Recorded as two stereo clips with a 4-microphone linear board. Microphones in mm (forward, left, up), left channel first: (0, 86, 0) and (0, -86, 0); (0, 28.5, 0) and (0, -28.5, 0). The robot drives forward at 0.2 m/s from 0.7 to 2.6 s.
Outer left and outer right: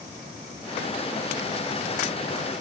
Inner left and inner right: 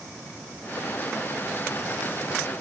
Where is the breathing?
I don't hear breathing.